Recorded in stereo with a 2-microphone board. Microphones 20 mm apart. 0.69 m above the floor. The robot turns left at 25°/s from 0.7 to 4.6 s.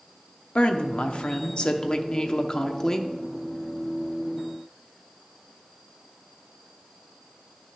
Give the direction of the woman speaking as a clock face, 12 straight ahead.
9 o'clock.